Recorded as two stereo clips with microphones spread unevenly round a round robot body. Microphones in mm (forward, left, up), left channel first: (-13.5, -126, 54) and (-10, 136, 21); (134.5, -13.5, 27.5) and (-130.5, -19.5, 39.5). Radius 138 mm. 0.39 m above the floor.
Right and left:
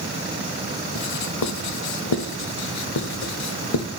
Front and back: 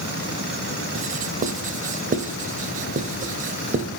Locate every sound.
0.9 s writing: 115° right, 0.8 m